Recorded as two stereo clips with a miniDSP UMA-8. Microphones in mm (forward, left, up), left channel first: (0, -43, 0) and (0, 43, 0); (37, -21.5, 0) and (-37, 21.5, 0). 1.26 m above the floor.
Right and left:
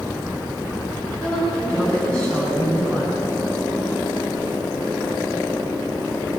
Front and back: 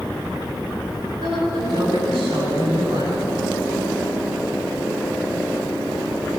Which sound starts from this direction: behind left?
A woman speaking, at 1.2 s.